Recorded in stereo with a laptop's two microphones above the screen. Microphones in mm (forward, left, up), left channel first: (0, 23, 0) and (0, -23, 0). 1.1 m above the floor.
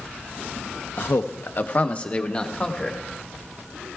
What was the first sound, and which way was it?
A man speaking, 65° left (ahead or behind).